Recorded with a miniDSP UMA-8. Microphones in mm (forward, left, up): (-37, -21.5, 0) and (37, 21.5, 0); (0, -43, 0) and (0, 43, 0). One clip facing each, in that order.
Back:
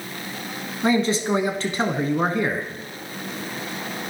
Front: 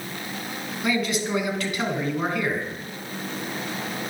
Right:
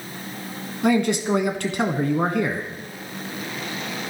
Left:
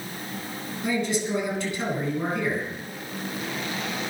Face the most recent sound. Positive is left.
turn(degrees=-95)